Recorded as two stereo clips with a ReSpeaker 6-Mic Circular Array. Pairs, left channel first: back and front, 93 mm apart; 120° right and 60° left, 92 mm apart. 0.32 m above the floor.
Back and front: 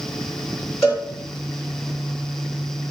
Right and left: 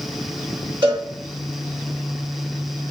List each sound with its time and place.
0.8 s a cowbell: 90° left, 4 m